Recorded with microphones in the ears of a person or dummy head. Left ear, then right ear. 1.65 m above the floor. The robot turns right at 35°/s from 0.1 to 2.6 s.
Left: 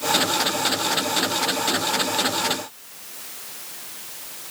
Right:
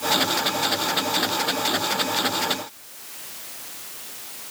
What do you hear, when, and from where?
Only background noise.